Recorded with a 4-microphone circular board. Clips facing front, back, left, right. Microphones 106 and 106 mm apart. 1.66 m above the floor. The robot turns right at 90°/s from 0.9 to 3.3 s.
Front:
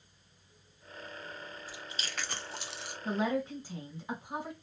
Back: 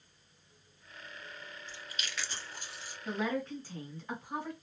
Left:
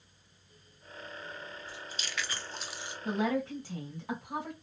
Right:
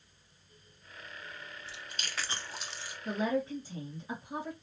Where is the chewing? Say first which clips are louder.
Front 2 dB, left 2 dB; 85° right, 0.6 m; by 3.0 s 30° left, 0.6 m.